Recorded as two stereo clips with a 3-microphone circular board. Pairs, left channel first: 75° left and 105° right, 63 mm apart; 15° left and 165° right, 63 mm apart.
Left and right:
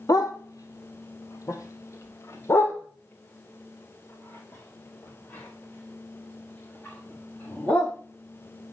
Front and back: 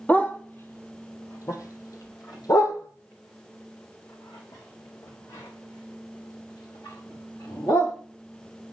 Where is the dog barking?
80° left, 1.2 m; by 7.9 s 5° left, 4.5 m.